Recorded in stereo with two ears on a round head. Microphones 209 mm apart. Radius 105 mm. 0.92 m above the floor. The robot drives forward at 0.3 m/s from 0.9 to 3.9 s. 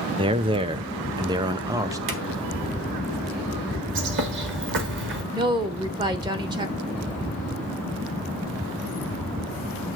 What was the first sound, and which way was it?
A man speaking, 20° right (ahead or behind).